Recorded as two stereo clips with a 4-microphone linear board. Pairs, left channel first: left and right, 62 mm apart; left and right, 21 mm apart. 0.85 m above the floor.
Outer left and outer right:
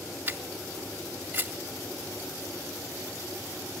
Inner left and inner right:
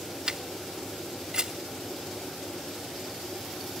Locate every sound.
0.3 s a camera shutter: 35° right (ahead or behind), 3 m